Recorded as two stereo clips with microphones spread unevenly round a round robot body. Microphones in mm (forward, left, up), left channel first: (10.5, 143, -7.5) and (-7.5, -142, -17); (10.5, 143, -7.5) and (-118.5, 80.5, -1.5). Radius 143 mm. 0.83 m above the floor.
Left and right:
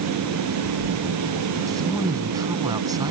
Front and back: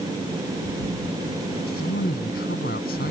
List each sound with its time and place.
1.7 s a man speaking: 15° right